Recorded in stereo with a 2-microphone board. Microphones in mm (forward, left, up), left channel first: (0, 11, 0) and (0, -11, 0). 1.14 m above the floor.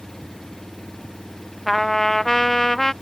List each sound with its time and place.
0.0 s an engine running: 20° left (ahead or behind)
1.7 s a trumpet: 20° left (ahead or behind)